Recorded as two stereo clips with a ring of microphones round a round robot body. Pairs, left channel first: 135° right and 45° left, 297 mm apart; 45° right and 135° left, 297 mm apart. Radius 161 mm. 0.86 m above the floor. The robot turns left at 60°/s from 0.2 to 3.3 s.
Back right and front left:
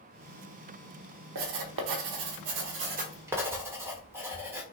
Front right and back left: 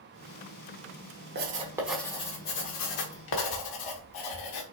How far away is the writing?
About 1.1 m.